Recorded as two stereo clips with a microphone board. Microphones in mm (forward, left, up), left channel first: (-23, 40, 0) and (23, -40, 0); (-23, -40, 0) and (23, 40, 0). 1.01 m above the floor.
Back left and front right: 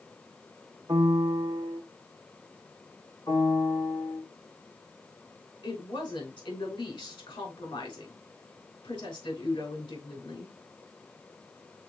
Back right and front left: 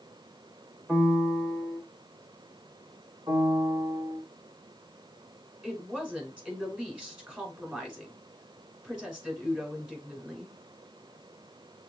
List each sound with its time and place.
0.9 s a piano: 20° right, 0.8 m
3.3 s a piano: 75° left, 2.5 m
5.6 s a woman speaking: 135° left, 3.5 m